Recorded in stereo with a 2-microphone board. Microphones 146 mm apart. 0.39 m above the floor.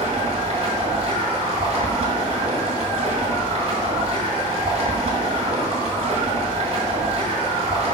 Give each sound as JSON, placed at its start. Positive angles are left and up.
{"t": 0.0, "sound": "running water", "side_deg": -45, "distance_m": 2.5}